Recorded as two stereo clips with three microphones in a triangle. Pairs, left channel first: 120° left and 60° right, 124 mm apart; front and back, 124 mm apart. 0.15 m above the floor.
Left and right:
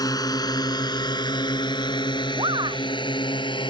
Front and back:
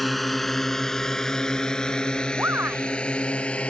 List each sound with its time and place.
0.0 s a drone: 90° left; by 3.7 s 80° left
2.4 s a shout: 105° right